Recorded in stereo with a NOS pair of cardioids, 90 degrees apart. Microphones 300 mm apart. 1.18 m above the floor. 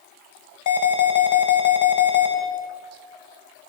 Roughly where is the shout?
No shout in this recording.